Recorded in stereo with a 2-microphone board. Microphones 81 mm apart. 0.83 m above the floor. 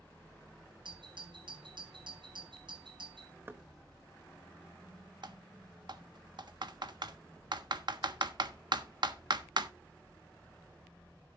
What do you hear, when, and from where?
0.8 s a doorbell: 70° right (ahead or behind), 7.5 m
3.5 s knocking: 25° right (ahead or behind), 0.8 m
5.2 s typing on a keyboard: 60° right (ahead or behind), 1.3 m